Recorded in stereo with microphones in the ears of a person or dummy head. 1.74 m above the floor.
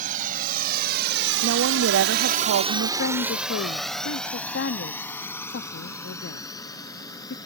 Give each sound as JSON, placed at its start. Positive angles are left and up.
{"t": 0.0, "sound": "a drone", "side_deg": -55}
{"t": 1.4, "sound": "a woman speaking", "side_deg": -80}
{"t": 3.0, "sound": "a woman speaking", "side_deg": 75}